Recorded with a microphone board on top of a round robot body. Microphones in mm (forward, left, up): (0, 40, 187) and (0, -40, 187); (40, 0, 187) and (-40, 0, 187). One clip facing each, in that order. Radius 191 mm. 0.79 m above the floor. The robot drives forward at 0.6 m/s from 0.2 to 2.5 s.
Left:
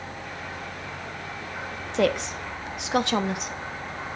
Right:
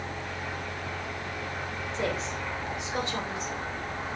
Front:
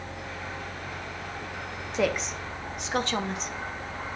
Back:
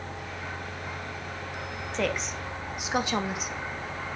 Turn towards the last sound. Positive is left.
turn(degrees=95)